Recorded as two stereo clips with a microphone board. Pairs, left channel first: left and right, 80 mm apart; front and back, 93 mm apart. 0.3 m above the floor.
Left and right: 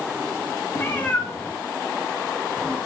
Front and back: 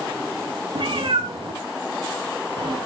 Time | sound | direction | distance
0.8 | a cat meowing | 150° left | 2.5 m